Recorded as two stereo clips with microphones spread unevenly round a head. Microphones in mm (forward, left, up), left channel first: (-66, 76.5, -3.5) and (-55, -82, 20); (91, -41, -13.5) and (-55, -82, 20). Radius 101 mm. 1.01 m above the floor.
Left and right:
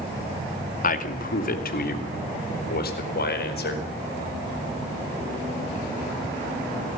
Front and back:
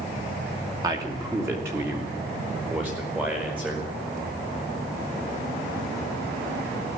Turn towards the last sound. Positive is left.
turn(degrees=110)